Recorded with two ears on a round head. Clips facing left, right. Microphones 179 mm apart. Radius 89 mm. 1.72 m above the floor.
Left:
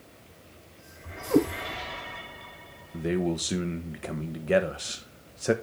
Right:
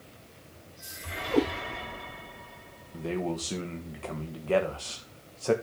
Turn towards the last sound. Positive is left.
turn(degrees=20)  # may be behind; listen again after turning